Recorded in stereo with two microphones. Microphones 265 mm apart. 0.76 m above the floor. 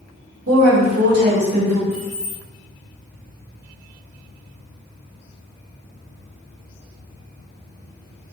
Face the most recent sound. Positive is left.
turn(degrees=-75)  # may be behind; listen again after turning